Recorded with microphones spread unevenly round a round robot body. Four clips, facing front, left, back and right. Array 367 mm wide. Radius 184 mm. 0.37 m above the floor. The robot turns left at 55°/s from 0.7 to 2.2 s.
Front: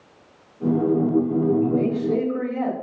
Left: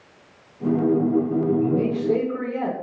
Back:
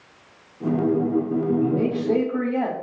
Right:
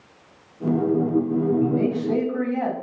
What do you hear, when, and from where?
1.6 s a man speaking: 130° right, 2.5 m; by 2.8 s 165° right, 2.5 m